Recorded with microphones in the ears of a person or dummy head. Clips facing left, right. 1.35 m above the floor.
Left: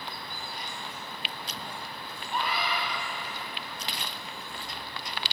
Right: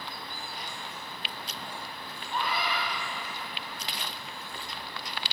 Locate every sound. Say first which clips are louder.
2.3 s a scream: even; 5° right (ahead or behind), 9.5 m